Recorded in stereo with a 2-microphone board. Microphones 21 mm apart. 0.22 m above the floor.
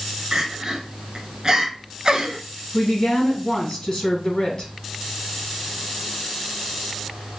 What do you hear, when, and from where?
0.3 s crying: 35° right (ahead or behind), 0.6 m
2.7 s a woman speaking: 40° left (ahead or behind), 1.3 m